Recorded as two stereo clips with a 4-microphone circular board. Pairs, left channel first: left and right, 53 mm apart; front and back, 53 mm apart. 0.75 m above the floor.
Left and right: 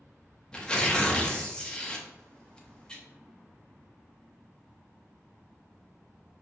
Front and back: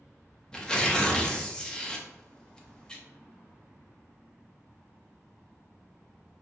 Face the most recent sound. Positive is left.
turn(degrees=50)